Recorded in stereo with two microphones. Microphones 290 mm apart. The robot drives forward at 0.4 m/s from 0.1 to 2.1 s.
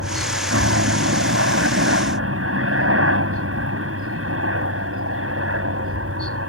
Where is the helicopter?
50° right (ahead or behind).